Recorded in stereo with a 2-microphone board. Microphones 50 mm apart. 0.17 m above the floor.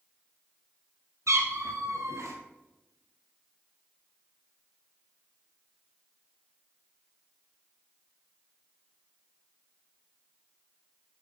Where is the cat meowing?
80° right, 1.6 m.